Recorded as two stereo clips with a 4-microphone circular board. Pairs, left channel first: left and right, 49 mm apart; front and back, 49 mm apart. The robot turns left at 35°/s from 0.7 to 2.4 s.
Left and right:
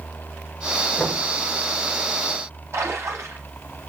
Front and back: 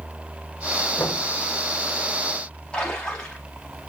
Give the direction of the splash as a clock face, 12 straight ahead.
2 o'clock.